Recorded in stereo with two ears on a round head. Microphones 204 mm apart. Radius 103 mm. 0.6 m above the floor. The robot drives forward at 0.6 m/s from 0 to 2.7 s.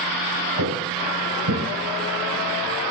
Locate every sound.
0.6 s footsteps: 85° right, 4.5 m